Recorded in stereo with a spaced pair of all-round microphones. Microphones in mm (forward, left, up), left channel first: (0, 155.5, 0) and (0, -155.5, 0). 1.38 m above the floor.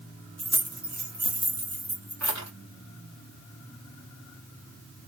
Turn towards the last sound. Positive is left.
turn(degrees=-55)  # may be behind; listen again after turning